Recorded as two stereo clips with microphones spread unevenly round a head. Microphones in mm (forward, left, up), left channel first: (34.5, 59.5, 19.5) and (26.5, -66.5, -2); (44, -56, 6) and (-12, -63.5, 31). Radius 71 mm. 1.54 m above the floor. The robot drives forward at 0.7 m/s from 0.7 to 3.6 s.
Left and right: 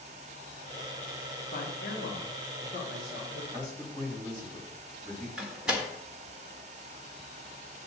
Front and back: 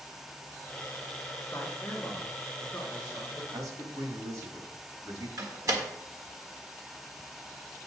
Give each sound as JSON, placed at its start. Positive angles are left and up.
{"t": 1.5, "sound": "a man speaking", "azimuth_deg": 70, "distance_m": 2.0}
{"t": 3.5, "sound": "a man speaking", "azimuth_deg": -170, "distance_m": 3.5}
{"t": 5.4, "sound": "a door slam", "azimuth_deg": 180, "distance_m": 1.5}